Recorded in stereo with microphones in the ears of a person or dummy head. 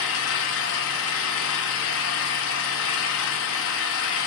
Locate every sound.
0.0 s an engine running: 70° left (ahead or behind), 0.9 m